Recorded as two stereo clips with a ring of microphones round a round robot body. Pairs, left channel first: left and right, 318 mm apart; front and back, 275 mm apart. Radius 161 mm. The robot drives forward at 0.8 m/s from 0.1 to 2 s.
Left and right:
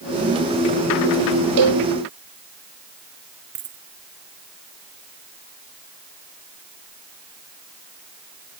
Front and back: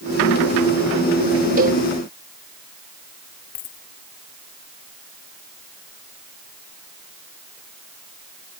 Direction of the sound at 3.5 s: 30° right.